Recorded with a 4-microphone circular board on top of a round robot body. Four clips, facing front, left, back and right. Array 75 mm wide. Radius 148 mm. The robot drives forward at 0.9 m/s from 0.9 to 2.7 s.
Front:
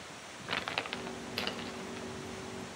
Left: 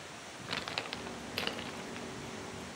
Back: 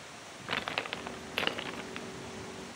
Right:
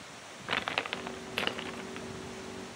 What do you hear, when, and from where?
0.5 s crumpling: 105° right, 1.1 m; by 2.1 s 160° right, 1.6 m